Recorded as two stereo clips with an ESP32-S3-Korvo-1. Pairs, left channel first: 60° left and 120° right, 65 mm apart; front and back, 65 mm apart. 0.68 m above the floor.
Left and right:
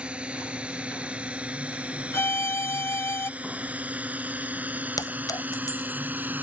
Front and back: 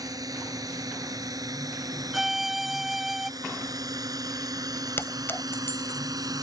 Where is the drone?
165° left; by 6.4 s straight behind.